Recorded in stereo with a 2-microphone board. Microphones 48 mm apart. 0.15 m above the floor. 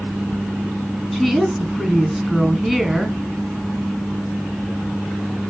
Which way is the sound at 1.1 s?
5° right (ahead or behind).